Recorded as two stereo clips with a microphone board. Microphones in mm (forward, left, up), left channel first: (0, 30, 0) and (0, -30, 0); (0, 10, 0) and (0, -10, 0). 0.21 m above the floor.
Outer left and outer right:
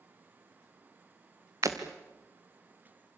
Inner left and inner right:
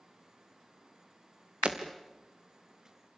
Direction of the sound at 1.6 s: 60° right (ahead or behind).